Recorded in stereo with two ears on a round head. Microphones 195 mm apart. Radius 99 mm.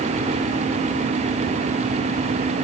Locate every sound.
Only background noise.